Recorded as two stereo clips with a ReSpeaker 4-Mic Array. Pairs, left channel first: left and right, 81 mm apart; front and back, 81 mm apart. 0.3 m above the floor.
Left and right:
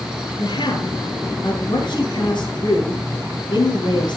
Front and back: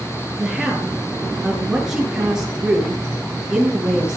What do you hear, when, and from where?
0.4 s a woman speaking: 100° left, 5.5 m